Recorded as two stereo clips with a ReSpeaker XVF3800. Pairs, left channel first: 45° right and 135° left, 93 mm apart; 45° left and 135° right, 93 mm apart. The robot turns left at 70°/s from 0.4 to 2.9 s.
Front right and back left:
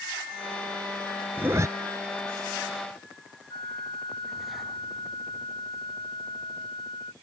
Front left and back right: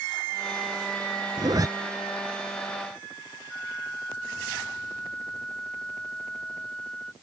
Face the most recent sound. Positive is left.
turn(degrees=-35)